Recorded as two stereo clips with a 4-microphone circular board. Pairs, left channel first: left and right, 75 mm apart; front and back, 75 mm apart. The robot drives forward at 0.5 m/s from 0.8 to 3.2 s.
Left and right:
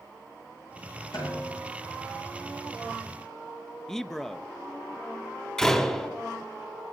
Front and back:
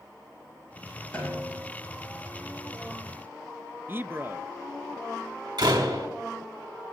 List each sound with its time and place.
1.1 s a snare drum: 70° left, 10 m
3.9 s a man speaking: 170° left, 0.5 m
5.6 s a door slam: 170° left, 2.5 m